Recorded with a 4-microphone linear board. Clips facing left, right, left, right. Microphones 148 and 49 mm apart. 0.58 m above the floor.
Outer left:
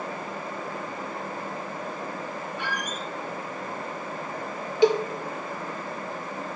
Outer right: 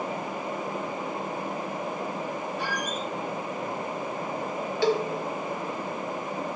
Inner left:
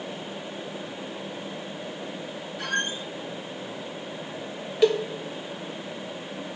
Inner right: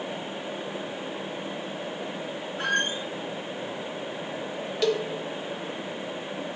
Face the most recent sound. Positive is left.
turn(degrees=20)  # may be behind; listen again after turning